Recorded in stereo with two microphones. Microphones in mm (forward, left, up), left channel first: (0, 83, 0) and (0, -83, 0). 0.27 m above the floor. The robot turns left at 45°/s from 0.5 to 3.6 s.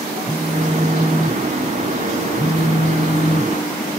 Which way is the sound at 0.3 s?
15° right (ahead or behind).